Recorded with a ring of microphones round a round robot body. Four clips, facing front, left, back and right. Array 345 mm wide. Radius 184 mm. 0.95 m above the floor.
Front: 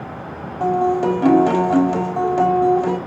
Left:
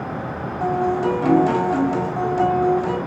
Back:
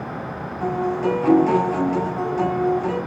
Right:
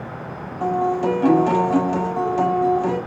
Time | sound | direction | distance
0.6 | a guitar | straight ahead | 5.5 m